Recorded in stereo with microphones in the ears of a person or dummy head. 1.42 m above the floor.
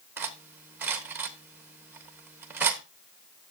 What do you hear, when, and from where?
0.2 s cutlery clinking: 10° right (ahead or behind), 0.6 m